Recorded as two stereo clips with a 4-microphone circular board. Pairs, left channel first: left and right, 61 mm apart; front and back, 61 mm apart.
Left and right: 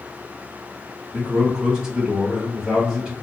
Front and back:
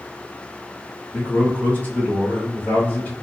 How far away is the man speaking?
About 1.6 m.